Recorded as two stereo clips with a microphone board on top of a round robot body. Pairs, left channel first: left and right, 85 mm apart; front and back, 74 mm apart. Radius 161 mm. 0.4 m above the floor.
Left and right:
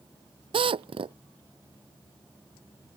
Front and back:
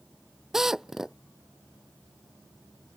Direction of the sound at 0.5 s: 95° right.